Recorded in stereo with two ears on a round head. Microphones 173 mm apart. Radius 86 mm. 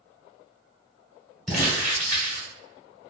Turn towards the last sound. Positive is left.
turn(degrees=0)  # may be behind; listen again after turning